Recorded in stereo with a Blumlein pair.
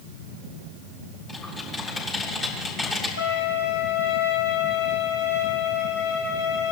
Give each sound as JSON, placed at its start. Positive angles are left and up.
{"t": 1.3, "sound": "typing on a keyboard", "azimuth_deg": 15, "distance_m": 4.5}
{"t": 3.2, "sound": "a violin", "azimuth_deg": 65, "distance_m": 6.5}